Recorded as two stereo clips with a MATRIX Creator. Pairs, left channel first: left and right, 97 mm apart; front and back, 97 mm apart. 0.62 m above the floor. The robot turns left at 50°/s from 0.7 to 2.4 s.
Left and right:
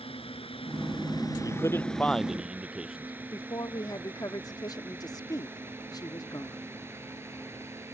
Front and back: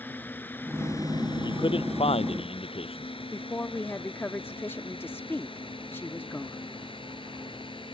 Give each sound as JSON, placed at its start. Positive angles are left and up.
{"t": 0.0, "sound": "a drone", "azimuth_deg": 70}
{"t": 1.4, "sound": "a man speaking", "azimuth_deg": 40}
{"t": 3.3, "sound": "a woman speaking", "azimuth_deg": 60}